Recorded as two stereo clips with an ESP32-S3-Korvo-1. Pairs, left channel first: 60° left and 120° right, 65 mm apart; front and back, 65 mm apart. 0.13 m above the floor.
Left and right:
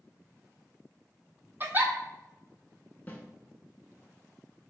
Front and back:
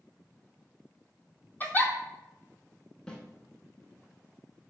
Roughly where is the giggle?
Ahead right.